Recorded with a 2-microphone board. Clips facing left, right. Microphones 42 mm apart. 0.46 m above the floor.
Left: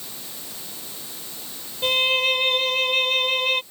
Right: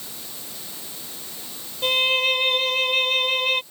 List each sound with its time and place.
1.8 s a violin: centre (ahead or behind)